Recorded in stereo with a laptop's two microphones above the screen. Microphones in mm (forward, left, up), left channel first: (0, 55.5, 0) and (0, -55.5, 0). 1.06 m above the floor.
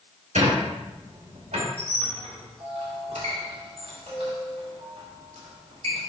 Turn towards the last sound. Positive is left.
turn(degrees=-70)  # may be behind; listen again after turning